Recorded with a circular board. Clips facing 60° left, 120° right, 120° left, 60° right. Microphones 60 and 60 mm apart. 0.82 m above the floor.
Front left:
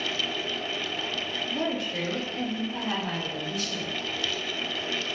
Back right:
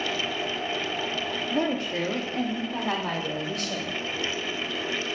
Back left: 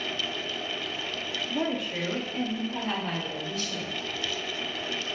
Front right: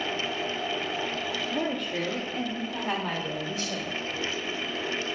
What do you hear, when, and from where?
1.5 s a woman speaking: 170° right, 1.5 m; by 4.0 s 120° right, 2 m